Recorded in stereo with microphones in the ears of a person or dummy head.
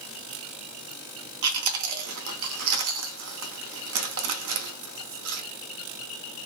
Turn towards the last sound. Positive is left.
turn(degrees=-80)